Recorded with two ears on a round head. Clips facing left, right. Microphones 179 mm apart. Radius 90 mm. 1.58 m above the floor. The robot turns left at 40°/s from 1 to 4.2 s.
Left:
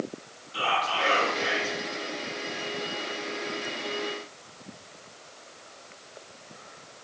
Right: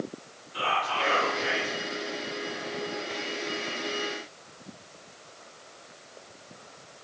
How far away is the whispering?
About 1.4 m.